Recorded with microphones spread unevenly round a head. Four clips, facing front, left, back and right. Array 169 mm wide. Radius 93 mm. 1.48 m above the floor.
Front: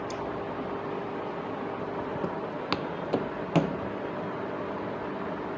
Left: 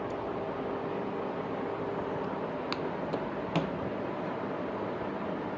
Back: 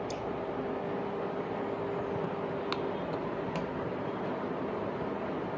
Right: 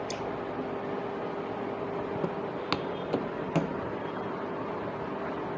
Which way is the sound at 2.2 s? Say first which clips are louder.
Right 2 dB, front 2 dB; 65° right.